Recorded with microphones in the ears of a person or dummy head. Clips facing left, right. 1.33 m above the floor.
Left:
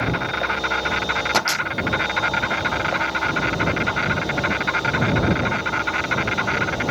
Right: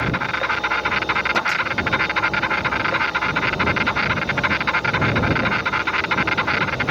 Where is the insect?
55° right (ahead or behind).